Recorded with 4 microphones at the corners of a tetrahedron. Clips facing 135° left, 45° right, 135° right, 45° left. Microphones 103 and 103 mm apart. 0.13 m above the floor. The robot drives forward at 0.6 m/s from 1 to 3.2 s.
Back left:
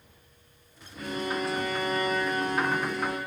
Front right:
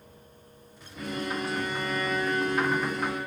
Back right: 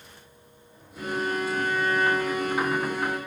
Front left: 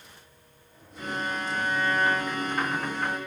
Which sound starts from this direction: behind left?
A violin, at 1.0 s.